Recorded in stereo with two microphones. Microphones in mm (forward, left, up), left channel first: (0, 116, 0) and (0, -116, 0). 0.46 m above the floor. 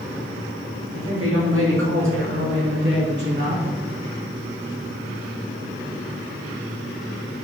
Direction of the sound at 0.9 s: 75° right (ahead or behind).